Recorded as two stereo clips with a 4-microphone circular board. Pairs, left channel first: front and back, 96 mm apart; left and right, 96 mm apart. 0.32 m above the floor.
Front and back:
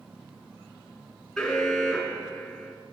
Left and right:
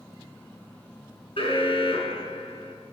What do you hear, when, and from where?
1.4 s an alarm: 85° left, 6 m